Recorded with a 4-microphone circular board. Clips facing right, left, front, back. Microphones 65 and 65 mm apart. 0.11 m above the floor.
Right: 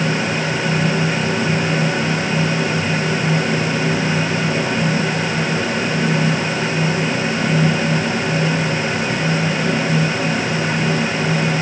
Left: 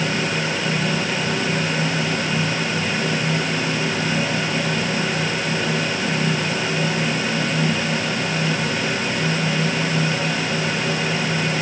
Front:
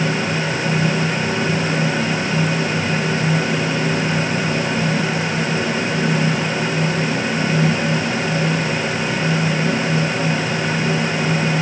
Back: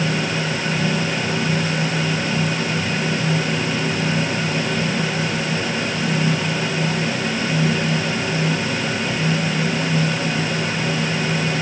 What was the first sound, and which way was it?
Only background noise.